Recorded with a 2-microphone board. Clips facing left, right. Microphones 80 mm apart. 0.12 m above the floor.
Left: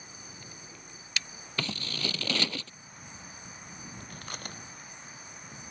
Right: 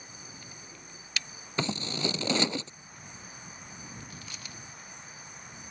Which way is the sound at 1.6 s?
20° right (ahead or behind).